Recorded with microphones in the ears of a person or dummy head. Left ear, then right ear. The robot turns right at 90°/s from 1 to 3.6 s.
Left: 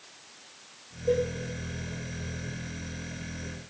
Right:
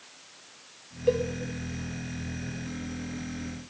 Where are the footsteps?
No footsteps in this recording.